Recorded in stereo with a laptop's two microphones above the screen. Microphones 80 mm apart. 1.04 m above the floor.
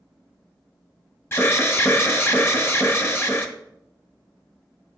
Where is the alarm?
30° left (ahead or behind), 0.8 m.